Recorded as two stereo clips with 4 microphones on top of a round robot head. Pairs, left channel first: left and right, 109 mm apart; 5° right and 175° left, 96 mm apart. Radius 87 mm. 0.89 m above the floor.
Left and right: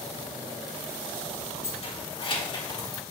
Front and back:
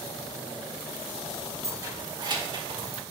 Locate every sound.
1.6 s keys jangling: 120° left, 1.9 m; by 3.0 s 150° left, 1.7 m